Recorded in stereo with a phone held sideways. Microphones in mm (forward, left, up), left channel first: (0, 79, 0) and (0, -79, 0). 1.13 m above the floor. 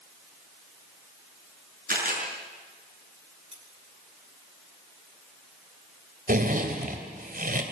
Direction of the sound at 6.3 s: 60° right (ahead or behind).